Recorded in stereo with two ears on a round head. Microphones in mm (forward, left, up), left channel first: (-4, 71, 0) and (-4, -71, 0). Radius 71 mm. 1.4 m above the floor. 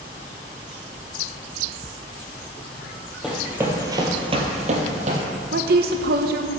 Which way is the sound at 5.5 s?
65° right (ahead or behind).